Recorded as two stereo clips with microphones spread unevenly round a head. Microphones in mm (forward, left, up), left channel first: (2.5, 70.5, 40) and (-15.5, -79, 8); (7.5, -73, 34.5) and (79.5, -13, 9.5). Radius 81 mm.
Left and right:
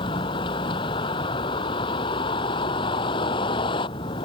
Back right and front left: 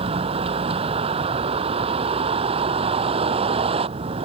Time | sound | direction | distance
0.0 | a vehicle | 25° left | ?